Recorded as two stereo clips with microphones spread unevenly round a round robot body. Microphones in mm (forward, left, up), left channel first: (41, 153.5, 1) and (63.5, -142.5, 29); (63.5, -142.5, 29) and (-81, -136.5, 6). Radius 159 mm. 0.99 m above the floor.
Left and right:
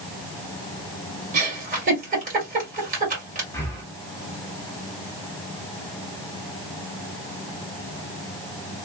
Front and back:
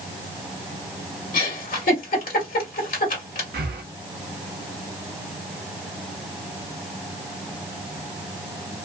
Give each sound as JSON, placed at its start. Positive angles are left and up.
{"t": 1.3, "sound": "a giggle", "azimuth_deg": -20, "distance_m": 1.8}
{"t": 3.5, "sound": "breathing", "azimuth_deg": 180, "distance_m": 0.7}